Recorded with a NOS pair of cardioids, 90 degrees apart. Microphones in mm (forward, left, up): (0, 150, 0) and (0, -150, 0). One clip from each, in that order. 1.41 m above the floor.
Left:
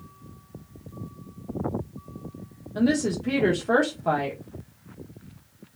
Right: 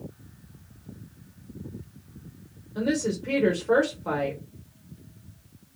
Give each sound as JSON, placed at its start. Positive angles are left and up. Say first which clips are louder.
{"t": 2.8, "sound": "a woman speaking", "louder": "left 2 dB", "azimuth_deg": 20, "distance_m": 0.9}